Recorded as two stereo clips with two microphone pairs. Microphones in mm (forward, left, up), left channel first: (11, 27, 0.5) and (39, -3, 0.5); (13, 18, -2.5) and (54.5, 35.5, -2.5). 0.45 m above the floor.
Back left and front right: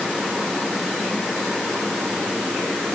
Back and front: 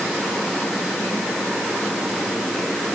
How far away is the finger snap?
No finger snap in this recording.